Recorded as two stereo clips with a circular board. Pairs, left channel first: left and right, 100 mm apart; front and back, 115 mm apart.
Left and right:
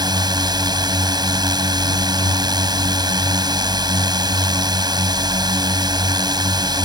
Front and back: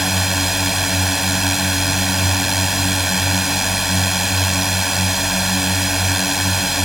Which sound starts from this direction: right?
A drone, at 0.0 s.